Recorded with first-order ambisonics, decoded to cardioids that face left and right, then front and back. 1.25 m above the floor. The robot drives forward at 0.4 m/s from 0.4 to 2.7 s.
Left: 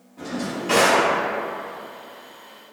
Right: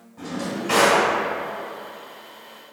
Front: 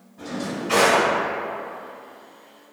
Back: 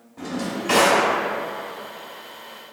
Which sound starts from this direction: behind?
A drawer, at 0.2 s.